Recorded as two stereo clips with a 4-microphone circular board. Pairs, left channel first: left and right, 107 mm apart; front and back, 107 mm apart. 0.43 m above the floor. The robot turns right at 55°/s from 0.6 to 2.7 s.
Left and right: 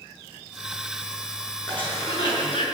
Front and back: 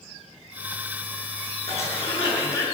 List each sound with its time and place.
1.7 s a cough: 10° left, 6 m; by 2.6 s 65° left, 6 m